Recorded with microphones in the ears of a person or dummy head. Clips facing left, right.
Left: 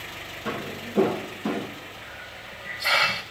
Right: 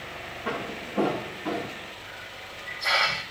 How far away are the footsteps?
About 4 m.